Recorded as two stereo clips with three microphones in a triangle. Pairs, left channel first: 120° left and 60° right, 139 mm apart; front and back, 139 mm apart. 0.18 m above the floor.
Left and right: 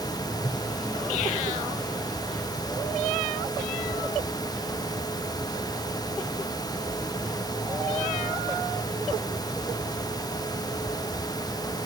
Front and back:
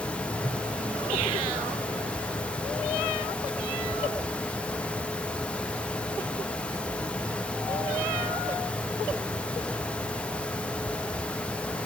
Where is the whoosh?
175° left, 7 m.